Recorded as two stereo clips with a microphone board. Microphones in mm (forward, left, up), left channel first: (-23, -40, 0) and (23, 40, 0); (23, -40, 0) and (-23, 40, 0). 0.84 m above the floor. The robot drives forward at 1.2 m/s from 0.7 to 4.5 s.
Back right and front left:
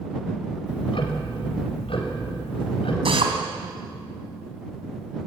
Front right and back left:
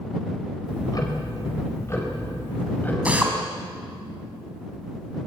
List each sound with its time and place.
0.7 s ticking: 100° right, 4 m; by 3.0 s 130° right, 5 m
3.0 s a drill: 45° left, 4 m